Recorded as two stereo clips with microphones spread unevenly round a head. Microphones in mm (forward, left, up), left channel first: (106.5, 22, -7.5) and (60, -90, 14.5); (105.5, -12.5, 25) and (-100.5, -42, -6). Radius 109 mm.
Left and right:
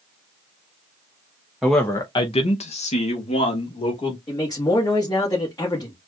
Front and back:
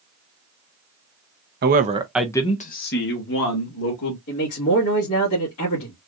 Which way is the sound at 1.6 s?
155° left.